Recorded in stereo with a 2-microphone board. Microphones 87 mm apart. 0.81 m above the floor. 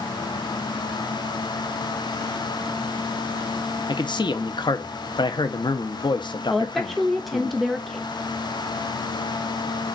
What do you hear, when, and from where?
3.9 s a man speaking: 60° left (ahead or behind), 0.7 m
6.5 s a woman speaking: centre (ahead or behind), 0.5 m